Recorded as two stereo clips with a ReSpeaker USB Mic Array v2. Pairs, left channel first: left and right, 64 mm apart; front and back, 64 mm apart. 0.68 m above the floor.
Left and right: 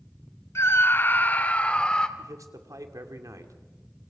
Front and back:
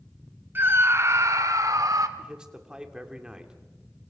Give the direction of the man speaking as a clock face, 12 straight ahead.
3 o'clock.